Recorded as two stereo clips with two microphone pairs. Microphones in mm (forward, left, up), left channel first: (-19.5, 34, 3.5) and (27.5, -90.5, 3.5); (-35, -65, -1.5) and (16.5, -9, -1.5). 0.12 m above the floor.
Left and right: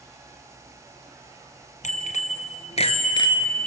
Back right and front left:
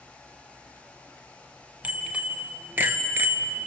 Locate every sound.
1.8 s a bicycle bell: 120° left, 2.5 m; by 3.7 s 35° left, 1.1 m